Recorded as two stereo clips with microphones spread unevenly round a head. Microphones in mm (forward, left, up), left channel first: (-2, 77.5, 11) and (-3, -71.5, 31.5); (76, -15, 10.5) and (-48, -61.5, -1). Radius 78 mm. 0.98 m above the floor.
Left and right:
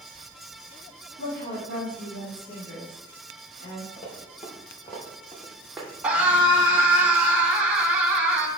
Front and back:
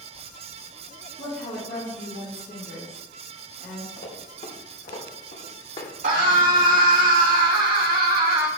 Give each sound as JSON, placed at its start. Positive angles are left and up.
{"t": 1.2, "sound": "a woman speaking", "azimuth_deg": 65, "distance_m": 3.0}
{"t": 4.0, "sound": "running footsteps", "azimuth_deg": 40, "distance_m": 4.0}
{"t": 6.0, "sound": "a scream", "azimuth_deg": -175, "distance_m": 1.8}